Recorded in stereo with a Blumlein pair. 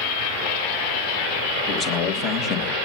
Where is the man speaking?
30° left, 2.5 m.